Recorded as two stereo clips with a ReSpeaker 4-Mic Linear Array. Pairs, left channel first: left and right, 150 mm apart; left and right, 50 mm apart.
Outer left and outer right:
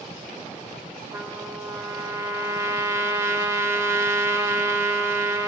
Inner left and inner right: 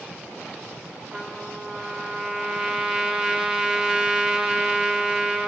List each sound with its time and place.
1.1 s a trumpet: 20° right (ahead or behind), 0.9 m